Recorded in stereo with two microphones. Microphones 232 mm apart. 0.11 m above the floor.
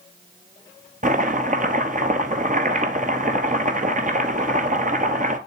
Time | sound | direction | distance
1.0 | chopping | 40° right (ahead or behind) | 1.0 m